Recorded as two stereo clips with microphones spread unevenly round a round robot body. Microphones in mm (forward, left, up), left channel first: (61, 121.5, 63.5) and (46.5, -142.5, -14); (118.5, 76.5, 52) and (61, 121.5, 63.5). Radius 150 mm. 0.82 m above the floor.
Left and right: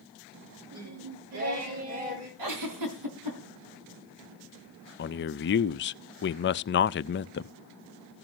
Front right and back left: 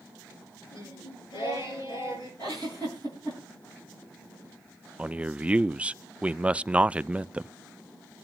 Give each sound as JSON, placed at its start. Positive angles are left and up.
{"t": 0.7, "sound": "singing", "azimuth_deg": -65, "distance_m": 8.5}
{"t": 2.4, "sound": "a giggle", "azimuth_deg": -110, "distance_m": 4.5}
{"t": 5.0, "sound": "a man speaking", "azimuth_deg": 65, "distance_m": 0.5}